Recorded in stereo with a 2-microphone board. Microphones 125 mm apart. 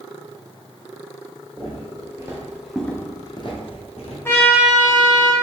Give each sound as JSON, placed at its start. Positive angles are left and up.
{"t": 1.6, "sound": "footsteps", "side_deg": -40, "distance_m": 1.7}
{"t": 4.2, "sound": "a trumpet", "side_deg": 20, "distance_m": 0.6}